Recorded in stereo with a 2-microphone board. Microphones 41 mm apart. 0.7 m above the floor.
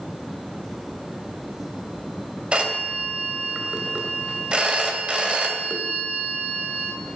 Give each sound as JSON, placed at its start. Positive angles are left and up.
{"t": 2.5, "sound": "a phone ringing", "side_deg": -25, "distance_m": 1.9}